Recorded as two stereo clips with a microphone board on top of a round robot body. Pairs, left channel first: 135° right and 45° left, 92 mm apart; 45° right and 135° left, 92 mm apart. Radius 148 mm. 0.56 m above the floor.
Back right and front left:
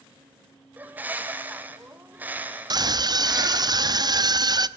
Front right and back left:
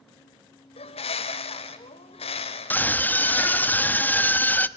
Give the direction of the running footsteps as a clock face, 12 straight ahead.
No running footsteps in this recording.